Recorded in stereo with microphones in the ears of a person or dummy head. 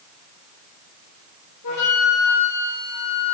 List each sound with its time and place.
1.6 s a flute: 80° left, 3 m